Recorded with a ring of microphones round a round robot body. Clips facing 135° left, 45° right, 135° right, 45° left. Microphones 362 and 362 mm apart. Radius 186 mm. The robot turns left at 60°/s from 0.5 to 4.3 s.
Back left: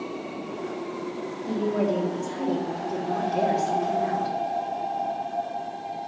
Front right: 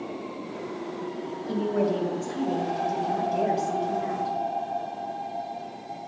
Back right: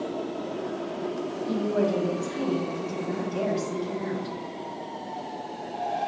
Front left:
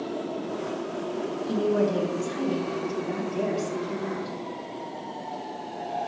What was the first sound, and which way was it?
A woman speaking, 15° left.